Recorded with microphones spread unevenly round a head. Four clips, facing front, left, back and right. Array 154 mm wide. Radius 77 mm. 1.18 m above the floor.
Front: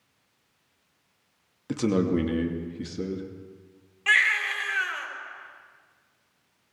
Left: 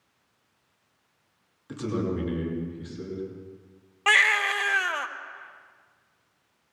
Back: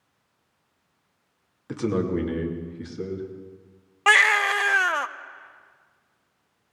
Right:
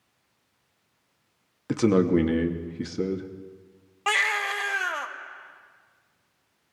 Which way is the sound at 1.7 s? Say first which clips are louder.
Right 9 dB, front 1 dB; 80° right.